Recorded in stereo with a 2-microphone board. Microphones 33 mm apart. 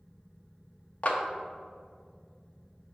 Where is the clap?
50° left (ahead or behind), 1.0 m.